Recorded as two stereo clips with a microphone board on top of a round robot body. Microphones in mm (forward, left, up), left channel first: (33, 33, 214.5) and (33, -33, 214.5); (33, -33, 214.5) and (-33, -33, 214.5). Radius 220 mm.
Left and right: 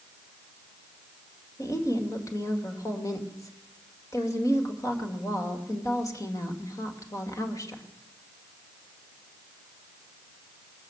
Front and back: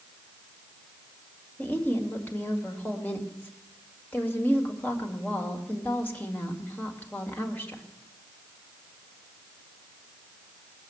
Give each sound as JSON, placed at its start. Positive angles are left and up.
{"t": 1.6, "sound": "a woman speaking", "azimuth_deg": 60, "distance_m": 2.0}